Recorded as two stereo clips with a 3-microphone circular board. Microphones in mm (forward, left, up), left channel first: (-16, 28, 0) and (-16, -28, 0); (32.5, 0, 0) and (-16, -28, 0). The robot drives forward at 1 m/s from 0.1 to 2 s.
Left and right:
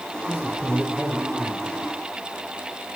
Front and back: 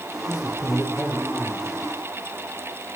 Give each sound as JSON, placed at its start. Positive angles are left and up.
{"t": 0.3, "sound": "a man speaking", "azimuth_deg": -15, "distance_m": 6.0}